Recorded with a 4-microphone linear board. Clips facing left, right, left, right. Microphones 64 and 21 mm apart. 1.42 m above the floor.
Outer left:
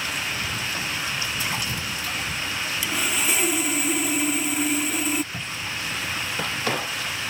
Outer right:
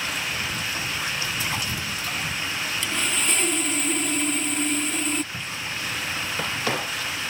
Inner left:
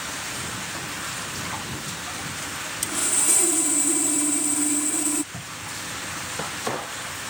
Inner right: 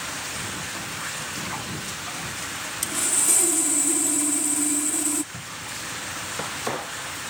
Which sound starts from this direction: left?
A cupboard door, at 5.3 s.